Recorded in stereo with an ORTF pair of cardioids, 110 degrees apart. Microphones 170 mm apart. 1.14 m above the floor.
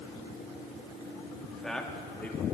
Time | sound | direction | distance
1.4 | a man speaking | straight ahead | 1.9 m